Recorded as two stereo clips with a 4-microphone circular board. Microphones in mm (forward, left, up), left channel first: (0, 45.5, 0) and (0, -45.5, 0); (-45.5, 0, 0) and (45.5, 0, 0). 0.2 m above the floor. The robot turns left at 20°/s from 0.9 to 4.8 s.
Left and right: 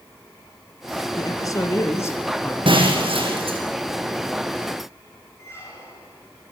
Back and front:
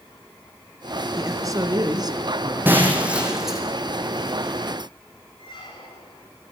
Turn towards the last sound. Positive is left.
turn(degrees=150)